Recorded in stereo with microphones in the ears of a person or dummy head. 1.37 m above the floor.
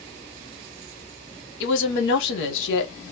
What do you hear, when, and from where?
1.6 s a woman speaking: 70° left (ahead or behind), 1.0 m